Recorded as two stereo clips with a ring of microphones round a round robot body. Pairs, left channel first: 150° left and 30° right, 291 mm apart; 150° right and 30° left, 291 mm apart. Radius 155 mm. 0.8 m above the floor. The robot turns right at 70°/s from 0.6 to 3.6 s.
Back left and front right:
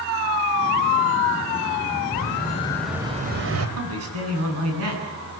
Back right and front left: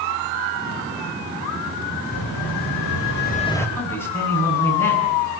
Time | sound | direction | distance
2.1 | an explosion | 170° right | 3.5 m
3.8 | a man speaking | 70° right | 9.5 m